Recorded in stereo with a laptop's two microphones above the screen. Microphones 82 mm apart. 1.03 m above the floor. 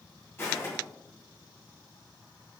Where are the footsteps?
25° left (ahead or behind), 1.7 m.